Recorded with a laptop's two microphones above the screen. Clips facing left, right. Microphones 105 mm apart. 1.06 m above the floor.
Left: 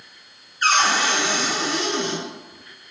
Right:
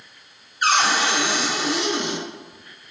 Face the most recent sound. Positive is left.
turn(degrees=-15)  # may be behind; listen again after turning